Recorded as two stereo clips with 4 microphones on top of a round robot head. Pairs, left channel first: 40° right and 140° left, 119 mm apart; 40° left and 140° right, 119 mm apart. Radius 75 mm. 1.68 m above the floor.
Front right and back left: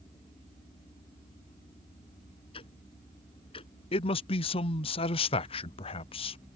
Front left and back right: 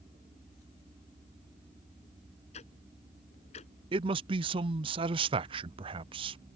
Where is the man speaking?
90° right.